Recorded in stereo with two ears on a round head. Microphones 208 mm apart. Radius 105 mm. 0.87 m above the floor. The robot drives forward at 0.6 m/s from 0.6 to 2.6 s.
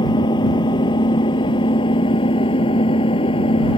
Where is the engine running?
20° left (ahead or behind).